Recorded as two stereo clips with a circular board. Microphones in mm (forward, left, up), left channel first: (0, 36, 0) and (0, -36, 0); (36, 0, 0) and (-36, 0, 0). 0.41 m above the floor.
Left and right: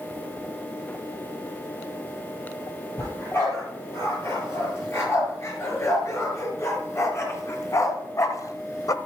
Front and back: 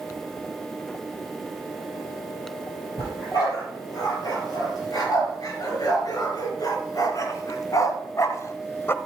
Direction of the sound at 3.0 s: 35° left.